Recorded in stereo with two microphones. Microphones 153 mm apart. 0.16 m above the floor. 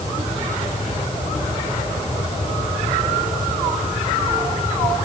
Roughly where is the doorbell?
No doorbell in this recording.